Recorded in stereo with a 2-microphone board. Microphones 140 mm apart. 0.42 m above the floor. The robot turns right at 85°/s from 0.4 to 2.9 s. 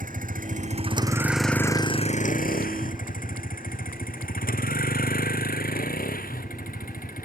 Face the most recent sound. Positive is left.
turn(degrees=80)